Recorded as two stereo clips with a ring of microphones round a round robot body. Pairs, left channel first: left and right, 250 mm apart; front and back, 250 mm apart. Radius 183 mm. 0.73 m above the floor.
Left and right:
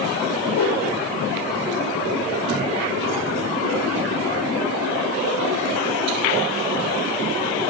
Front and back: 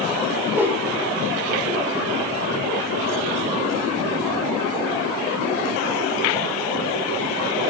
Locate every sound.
0.5 s a whoosh: 100° left, 3.5 m